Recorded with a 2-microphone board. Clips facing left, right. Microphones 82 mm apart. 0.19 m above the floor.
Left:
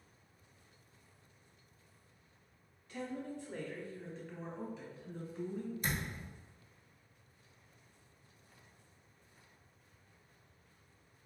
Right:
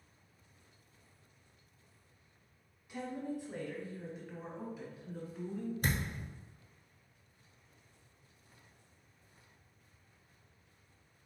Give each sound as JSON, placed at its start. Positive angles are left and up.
{"t": 2.9, "sound": "a woman speaking", "side_deg": -15, "distance_m": 1.5}
{"t": 5.8, "sound": "a thud", "side_deg": -55, "distance_m": 1.1}